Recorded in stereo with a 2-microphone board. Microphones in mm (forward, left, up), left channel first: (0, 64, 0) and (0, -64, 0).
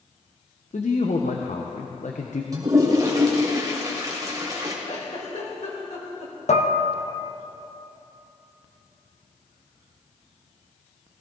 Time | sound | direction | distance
0.7 | a man speaking | 75° left (ahead or behind) | 1.1 m
2.5 | a toilet flushing | 30° right (ahead or behind) | 3 m
4.8 | a giggle | 70° left (ahead or behind) | 3 m
6.5 | dishes clattering | 70° left (ahead or behind) | 1.1 m